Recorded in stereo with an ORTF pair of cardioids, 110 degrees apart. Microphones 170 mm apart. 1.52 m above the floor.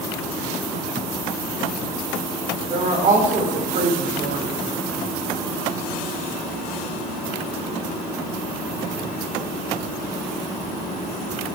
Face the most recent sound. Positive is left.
turn(degrees=-50)